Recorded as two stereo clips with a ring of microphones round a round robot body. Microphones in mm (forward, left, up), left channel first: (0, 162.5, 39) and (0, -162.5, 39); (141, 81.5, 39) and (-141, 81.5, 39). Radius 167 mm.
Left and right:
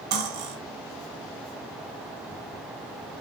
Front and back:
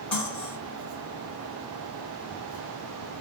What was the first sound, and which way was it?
Cutlery clinking, 85° right.